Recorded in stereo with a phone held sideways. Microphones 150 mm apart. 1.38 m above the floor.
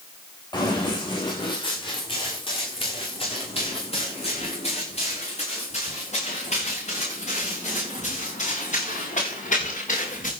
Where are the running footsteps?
30° left (ahead or behind), 9 m; by 10.3 s 55° left (ahead or behind), 12 m.